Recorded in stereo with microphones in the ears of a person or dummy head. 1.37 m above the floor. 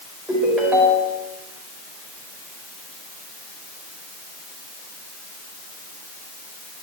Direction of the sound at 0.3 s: Centre (ahead or behind).